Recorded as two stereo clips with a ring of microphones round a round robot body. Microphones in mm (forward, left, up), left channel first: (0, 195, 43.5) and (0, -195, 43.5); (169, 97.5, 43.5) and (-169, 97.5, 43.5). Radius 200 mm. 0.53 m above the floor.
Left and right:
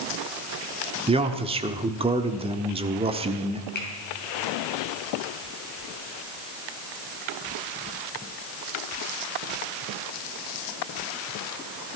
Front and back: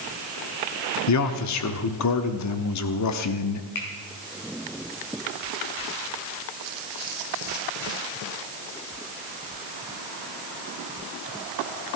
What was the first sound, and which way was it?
A man speaking, 20° right.